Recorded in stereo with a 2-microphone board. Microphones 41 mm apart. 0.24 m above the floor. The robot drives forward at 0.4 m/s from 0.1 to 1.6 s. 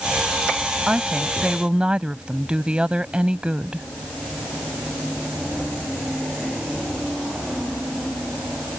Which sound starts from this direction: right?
A woman speaking, at 0.9 s.